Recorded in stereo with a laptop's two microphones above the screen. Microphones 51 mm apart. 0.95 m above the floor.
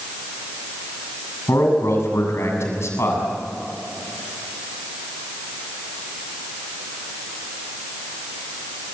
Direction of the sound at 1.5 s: 75° left (ahead or behind).